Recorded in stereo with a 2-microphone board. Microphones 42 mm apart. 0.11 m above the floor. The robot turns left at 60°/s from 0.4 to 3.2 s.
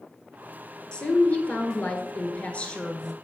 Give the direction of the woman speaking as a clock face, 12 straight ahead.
7 o'clock.